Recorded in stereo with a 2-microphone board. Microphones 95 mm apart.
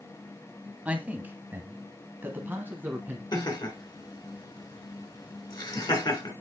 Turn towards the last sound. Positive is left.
turn(degrees=55)  # may be behind; listen again after turning